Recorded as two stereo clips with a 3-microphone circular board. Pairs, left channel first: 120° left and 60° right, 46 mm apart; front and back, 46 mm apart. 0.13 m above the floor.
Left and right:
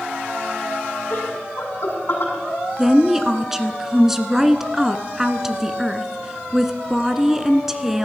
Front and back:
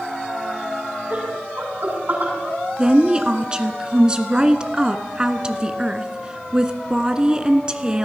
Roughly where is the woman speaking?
Behind right.